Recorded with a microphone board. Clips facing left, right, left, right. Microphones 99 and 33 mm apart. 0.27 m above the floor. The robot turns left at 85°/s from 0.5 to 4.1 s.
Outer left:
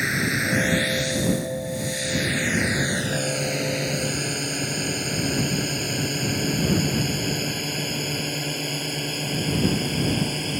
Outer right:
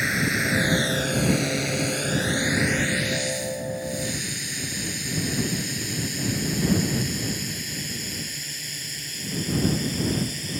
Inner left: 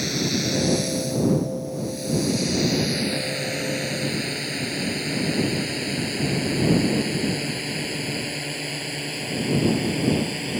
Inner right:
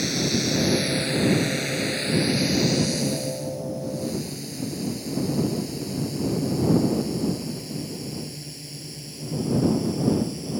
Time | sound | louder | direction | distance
0.0 | a drone | even, even | centre (ahead or behind) | ?